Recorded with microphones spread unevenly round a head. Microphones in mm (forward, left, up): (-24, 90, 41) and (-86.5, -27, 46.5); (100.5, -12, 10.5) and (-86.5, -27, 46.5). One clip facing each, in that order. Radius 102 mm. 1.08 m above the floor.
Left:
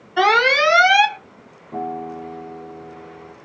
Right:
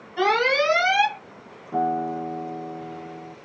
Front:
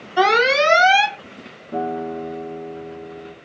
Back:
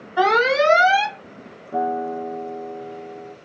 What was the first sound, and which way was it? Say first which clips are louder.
An alarm: left 4 dB, front 1 dB; 60° left.